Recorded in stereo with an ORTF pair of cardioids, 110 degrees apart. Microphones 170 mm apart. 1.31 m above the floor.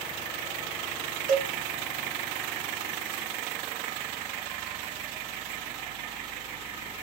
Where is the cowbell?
55° right, 1.1 m.